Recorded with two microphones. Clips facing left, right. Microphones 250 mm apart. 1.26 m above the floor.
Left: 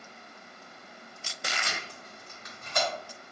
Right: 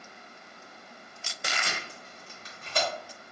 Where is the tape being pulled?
35° right (ahead or behind), 1.1 m.